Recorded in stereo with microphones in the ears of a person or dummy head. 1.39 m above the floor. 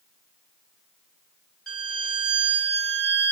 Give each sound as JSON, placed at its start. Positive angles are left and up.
{"t": 1.7, "sound": "a violin", "side_deg": 5, "distance_m": 1.3}